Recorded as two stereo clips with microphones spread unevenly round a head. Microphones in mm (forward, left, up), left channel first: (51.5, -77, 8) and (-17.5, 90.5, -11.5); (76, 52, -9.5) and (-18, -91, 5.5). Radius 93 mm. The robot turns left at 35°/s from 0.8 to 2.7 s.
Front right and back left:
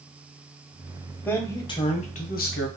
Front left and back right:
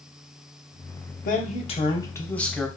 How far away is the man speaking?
About 0.8 m.